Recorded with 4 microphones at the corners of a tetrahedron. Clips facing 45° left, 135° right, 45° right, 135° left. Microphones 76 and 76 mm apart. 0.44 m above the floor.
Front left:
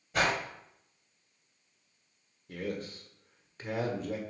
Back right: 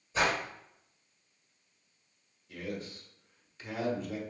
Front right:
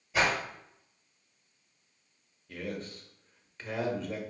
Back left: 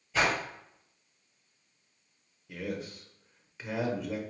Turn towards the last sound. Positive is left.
turn(degrees=55)